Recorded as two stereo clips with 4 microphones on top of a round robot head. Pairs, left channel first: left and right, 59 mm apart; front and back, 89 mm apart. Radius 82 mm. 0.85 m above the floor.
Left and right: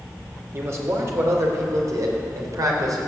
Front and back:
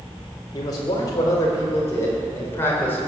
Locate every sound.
0.5 s a man speaking: 45° right, 3.5 m; by 3.0 s 70° right, 4 m